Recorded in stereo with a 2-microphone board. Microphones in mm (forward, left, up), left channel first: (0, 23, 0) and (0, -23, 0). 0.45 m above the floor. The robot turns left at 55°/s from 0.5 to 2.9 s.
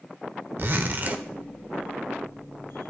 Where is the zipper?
95° right, 0.9 m; by 1.2 s 135° right, 0.9 m.